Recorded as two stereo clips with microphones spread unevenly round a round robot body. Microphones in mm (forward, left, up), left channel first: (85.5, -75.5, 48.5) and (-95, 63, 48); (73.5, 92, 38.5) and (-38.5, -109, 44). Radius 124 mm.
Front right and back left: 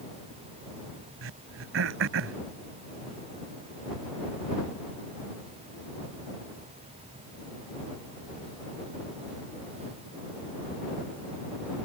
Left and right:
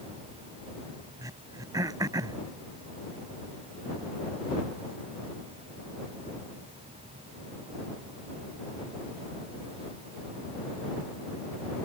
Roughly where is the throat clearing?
Behind.